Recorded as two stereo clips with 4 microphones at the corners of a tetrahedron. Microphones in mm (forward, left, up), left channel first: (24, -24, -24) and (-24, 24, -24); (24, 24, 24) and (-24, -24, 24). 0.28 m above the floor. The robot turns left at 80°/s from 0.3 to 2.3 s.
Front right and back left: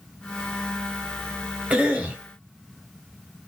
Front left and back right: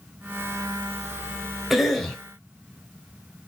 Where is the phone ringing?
No phone ringing in this recording.